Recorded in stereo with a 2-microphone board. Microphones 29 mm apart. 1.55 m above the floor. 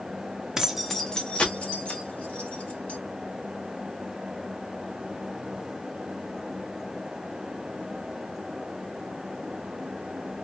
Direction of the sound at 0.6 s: 20° right (ahead or behind).